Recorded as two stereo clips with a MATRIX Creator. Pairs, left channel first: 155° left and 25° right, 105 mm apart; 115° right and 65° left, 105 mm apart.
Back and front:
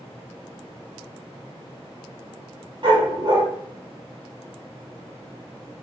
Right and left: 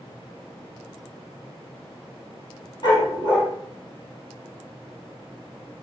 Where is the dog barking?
70° right, 6 m.